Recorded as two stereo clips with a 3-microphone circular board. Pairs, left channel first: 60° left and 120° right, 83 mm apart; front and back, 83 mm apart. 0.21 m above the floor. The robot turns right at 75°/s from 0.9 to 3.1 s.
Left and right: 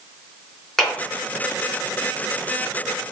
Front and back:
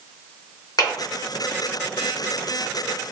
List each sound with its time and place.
0.8 s a clap: 25° right, 2 m; by 0.9 s 20° right, 2 m